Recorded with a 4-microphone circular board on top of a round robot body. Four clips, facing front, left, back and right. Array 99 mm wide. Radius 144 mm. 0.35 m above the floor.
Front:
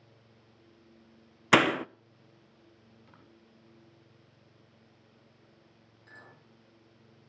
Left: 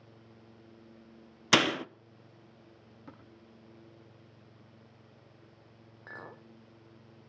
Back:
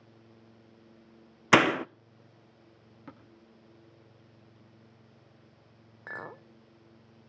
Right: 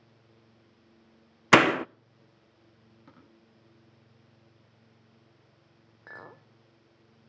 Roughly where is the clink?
Behind.